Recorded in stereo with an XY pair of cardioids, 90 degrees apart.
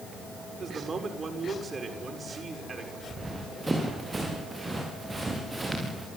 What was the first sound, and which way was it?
A man speaking, 40° right.